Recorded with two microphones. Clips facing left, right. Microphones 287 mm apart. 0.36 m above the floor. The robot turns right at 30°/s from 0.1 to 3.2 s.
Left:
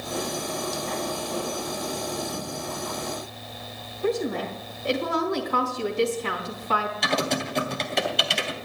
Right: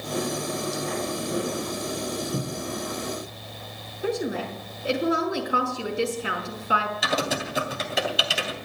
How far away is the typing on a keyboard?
About 2.5 m.